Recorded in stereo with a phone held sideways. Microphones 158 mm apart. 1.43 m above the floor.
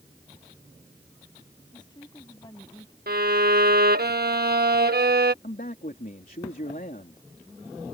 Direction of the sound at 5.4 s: 65° left (ahead or behind).